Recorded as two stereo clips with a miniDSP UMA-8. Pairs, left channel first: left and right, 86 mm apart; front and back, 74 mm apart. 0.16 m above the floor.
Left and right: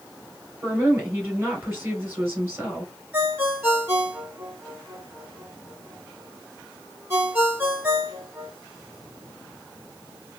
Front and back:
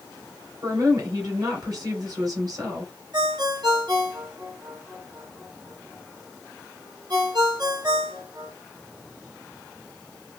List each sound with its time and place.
0.6 s a woman speaking: 150° right, 2.5 m
3.1 s a ringtone: 155° right, 2.5 m